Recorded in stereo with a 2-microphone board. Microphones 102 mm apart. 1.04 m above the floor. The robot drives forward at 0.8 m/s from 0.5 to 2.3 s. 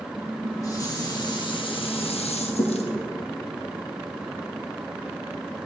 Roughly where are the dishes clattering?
Left.